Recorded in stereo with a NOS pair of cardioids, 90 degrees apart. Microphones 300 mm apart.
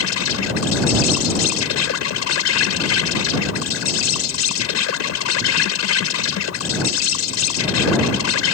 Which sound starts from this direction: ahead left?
An insect, at 0.0 s.